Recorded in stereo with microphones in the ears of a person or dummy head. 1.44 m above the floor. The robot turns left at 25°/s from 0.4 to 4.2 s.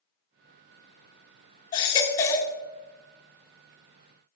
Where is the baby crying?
25° left (ahead or behind), 0.9 m; by 2.5 s 15° left (ahead or behind), 0.9 m.